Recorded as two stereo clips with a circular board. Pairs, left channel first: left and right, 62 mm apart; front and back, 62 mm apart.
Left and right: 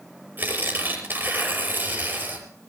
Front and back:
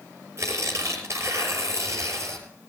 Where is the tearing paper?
140° right, 5.5 m.